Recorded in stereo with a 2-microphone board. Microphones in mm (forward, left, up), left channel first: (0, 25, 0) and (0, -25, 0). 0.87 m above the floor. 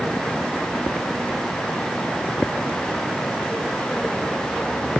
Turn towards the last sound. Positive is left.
No sound to turn to.